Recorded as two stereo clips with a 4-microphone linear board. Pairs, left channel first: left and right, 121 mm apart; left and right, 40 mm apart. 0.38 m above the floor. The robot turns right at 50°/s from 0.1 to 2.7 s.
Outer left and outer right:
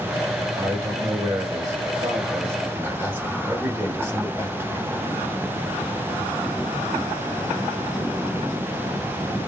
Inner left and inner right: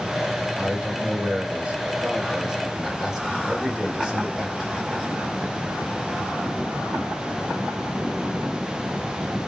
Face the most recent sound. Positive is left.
turn(degrees=-35)